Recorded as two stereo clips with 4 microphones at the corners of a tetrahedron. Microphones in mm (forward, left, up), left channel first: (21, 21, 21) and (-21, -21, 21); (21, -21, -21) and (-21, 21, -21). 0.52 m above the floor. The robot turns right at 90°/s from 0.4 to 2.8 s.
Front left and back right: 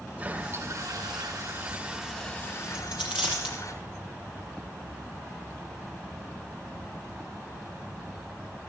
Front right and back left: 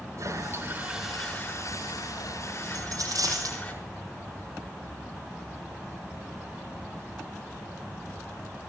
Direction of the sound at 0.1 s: 165° left.